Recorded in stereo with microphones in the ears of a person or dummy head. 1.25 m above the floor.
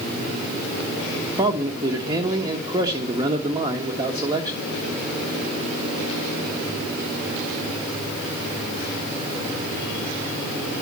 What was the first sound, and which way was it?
A man speaking, 15° right (ahead or behind).